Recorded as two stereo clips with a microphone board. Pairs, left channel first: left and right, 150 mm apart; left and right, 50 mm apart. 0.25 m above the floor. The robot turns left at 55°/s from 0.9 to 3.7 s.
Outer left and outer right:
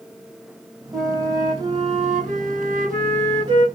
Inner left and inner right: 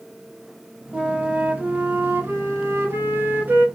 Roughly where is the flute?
Ahead.